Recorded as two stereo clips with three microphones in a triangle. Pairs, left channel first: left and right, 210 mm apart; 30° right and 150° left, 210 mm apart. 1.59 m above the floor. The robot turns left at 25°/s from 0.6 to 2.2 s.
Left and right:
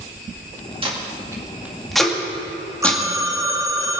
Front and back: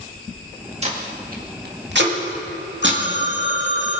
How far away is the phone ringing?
About 1.1 m.